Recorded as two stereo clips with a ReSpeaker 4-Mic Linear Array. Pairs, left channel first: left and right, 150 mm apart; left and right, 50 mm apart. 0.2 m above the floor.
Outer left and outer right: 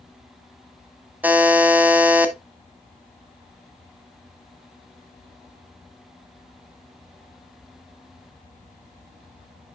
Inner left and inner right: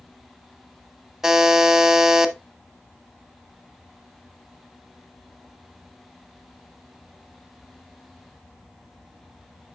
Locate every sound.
1.2 s a buzzer: 10° right (ahead or behind), 0.8 m